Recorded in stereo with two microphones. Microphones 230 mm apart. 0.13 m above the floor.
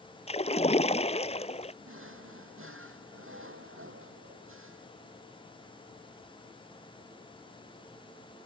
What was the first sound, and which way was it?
A splash, 25° left (ahead or behind).